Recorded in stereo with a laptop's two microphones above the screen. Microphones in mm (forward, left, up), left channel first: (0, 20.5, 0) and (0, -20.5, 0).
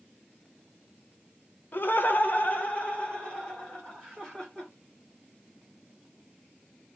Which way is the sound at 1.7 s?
50° left (ahead or behind).